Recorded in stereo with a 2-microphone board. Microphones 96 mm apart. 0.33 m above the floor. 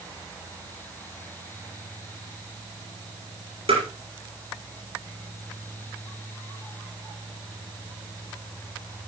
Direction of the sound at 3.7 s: 85° right.